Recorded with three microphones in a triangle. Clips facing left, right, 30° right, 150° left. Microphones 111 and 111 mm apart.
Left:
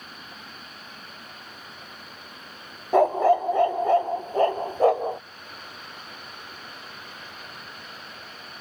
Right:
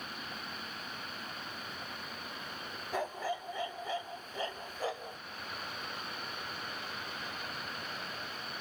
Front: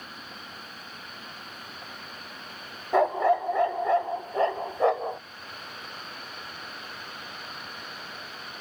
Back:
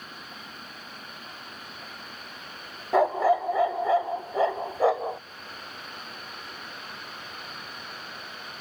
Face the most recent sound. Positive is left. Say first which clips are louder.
# left 18 dB, back 1 dB
turn(degrees=65)